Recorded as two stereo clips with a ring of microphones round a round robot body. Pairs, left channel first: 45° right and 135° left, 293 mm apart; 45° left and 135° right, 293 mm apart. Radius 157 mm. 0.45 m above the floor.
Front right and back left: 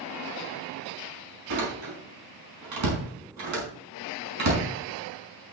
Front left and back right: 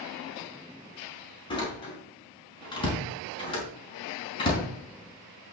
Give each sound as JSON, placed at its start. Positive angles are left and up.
{"t": 1.5, "sound": "a door slam", "azimuth_deg": 120, "distance_m": 4.0}